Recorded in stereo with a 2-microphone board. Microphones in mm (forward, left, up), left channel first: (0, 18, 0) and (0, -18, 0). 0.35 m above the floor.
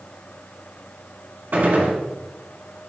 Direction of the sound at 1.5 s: 70° right (ahead or behind).